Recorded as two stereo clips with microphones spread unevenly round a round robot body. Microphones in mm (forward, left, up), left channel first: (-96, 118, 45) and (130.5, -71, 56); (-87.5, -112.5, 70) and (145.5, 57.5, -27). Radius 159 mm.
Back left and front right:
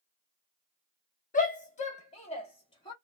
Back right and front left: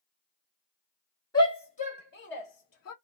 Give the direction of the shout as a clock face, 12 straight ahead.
8 o'clock.